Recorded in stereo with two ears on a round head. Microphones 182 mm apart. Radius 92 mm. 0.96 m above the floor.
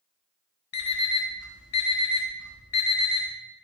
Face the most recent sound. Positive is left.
turn(degrees=85)